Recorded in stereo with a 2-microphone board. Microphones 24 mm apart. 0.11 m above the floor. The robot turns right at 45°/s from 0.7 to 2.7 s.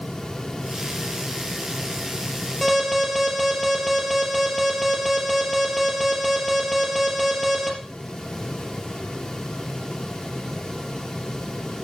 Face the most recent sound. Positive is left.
turn(degrees=10)  # may be behind; listen again after turning